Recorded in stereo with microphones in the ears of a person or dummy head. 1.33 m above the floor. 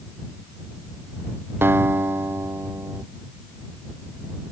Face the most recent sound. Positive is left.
turn(degrees=-10)  # may be behind; listen again after turning